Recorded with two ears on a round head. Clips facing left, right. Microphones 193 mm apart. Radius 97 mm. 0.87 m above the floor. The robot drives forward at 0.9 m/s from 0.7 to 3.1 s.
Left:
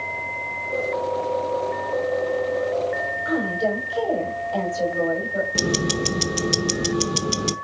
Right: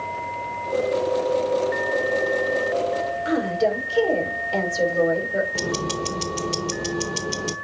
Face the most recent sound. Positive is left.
turn(degrees=20)  # may be behind; listen again after turning